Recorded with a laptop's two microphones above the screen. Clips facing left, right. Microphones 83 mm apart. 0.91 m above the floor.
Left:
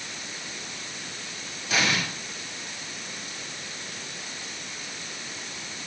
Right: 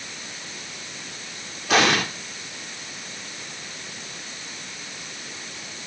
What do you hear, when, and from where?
1.7 s an explosion: 75° right (ahead or behind), 2.5 m